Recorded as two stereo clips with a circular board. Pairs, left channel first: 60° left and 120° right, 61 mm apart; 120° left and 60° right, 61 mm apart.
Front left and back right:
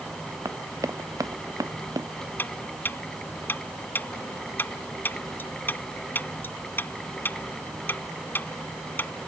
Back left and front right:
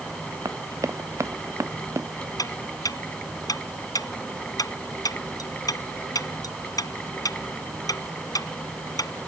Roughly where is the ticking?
Behind left.